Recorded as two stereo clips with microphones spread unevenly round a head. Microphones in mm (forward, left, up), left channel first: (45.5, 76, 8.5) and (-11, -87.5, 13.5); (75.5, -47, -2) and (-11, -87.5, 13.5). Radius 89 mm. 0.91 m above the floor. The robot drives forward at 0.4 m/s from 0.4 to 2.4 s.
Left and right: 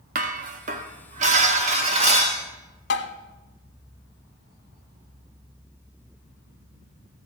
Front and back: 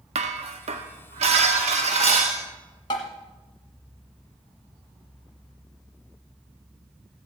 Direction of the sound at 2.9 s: 85° left.